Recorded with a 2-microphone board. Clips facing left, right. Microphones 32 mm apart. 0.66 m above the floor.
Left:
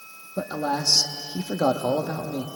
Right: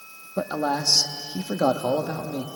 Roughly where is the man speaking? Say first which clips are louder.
Right 1 dB; centre.